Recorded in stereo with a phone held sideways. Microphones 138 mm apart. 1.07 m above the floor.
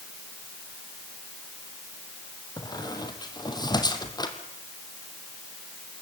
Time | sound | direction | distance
2.6 | a squeak | 30° left (ahead or behind) | 2.5 m